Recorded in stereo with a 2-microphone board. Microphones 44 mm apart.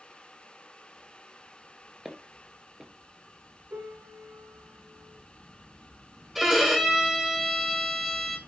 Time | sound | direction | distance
2.0 | footsteps | 10° right (ahead or behind) | 1.1 m
3.7 | a piano | 85° right | 3 m
6.3 | a violin | centre (ahead or behind) | 1.7 m